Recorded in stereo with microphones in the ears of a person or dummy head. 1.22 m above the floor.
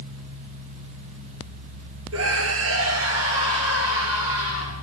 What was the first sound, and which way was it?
A scream, 80° right.